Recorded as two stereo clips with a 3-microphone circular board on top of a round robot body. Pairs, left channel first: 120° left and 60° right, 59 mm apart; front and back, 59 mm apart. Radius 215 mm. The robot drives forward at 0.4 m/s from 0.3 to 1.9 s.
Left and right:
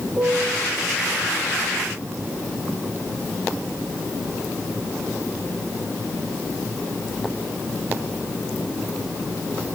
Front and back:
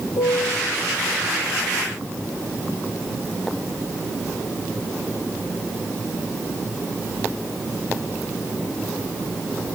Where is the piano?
5° left, 3 m.